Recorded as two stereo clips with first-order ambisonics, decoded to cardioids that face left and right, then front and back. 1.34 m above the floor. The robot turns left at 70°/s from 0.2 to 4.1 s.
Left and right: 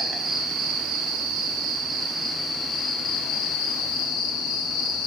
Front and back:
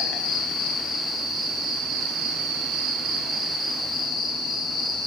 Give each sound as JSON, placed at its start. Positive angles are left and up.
{"t": 0.0, "sound": "an insect", "azimuth_deg": -20, "distance_m": 0.9}